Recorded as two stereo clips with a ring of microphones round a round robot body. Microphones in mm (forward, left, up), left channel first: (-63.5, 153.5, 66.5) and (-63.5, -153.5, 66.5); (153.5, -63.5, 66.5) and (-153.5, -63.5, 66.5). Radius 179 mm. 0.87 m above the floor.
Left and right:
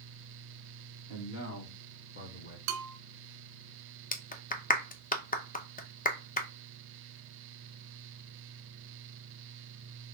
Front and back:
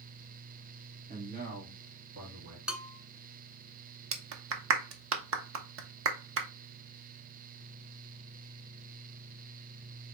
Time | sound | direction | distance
1.1 | a man speaking | 120° left | 2.5 m
2.7 | a bell | 95° right | 0.6 m
4.1 | a clap | 150° left | 0.9 m